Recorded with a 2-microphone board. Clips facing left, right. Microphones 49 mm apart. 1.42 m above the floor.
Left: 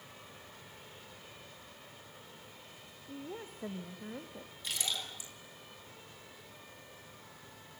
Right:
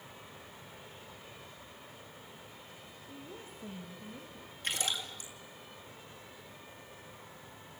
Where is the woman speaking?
30° left (ahead or behind), 1.3 m; by 4.5 s 55° left (ahead or behind), 2.5 m.